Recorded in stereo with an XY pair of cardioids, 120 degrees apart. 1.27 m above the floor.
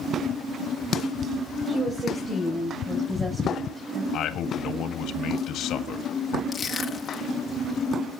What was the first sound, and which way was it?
A woman speaking, 30° right.